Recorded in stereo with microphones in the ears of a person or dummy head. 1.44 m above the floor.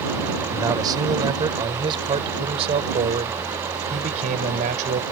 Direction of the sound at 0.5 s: 20° right (ahead or behind).